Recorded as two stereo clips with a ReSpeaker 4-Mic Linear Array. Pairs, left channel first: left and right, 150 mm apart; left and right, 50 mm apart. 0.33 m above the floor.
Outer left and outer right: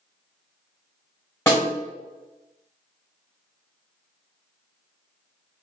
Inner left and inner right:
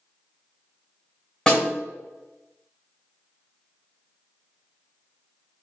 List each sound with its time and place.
1.5 s a snare drum: 20° left (ahead or behind), 1.7 m